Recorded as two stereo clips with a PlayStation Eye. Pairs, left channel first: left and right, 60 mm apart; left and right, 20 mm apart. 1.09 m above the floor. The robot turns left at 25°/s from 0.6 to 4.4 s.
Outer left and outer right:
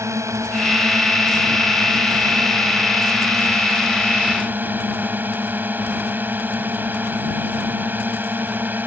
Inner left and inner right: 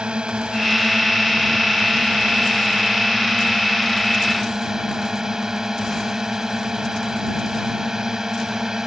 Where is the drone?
55° right; by 8.9 s 150° right.